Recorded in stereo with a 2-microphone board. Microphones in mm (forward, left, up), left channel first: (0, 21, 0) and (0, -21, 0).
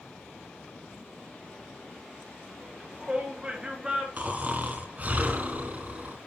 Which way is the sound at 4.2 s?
40° right (ahead or behind).